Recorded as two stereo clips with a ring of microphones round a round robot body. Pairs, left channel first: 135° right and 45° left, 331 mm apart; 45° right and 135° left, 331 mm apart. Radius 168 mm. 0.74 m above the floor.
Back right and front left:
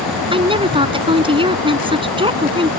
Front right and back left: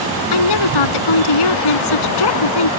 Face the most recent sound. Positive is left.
turn(degrees=-30)